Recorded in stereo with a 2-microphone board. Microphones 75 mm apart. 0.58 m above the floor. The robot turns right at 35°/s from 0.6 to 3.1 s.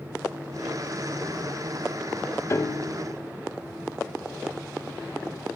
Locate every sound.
2.5 s a piano: 40° left (ahead or behind), 0.6 m; by 2.9 s 45° left (ahead or behind), 0.6 m